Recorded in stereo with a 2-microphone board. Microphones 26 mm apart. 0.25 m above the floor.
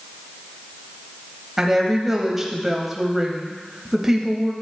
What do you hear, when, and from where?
1.6 s a woman speaking: 10° right (ahead or behind), 1.0 m